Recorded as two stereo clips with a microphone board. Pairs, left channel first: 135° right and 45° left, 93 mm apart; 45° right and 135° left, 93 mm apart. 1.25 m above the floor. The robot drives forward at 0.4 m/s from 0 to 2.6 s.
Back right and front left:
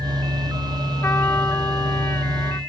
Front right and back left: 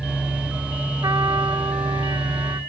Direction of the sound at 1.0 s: 170° left.